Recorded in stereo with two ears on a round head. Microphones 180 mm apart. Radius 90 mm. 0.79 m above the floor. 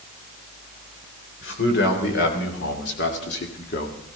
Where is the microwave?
No microwave in this recording.